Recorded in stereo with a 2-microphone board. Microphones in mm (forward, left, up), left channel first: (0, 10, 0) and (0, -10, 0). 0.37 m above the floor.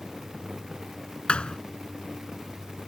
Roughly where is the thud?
Left.